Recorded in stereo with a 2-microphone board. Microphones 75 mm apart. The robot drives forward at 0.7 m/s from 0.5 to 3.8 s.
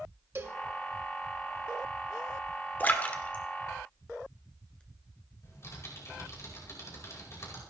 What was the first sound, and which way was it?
A cowbell, 35° right (ahead or behind).